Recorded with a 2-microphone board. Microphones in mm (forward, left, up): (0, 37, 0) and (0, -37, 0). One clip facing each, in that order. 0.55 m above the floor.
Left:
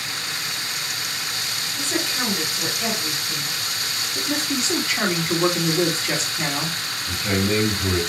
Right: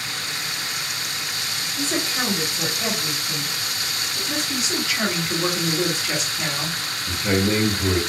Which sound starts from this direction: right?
A man speaking, at 7.1 s.